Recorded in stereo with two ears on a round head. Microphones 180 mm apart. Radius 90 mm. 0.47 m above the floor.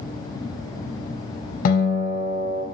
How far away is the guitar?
About 0.6 m.